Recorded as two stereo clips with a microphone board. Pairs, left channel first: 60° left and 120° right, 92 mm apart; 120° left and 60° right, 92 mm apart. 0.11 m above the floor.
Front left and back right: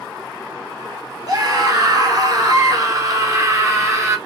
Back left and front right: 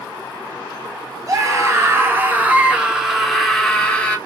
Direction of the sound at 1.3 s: 95° right.